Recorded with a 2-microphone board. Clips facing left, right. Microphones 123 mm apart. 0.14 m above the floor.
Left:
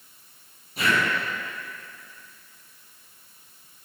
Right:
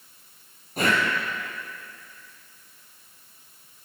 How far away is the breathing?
About 2.5 m.